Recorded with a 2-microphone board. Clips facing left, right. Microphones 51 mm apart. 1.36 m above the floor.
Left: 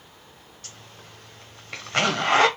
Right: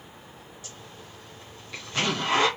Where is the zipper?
60° left (ahead or behind), 1.1 m.